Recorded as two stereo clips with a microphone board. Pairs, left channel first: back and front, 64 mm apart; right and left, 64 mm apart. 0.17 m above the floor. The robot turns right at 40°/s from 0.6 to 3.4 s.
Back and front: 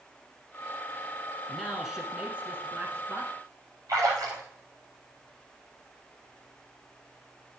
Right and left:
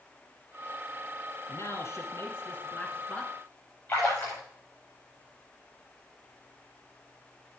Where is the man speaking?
95° right, 1.7 m; by 3.3 s 20° right, 1.7 m.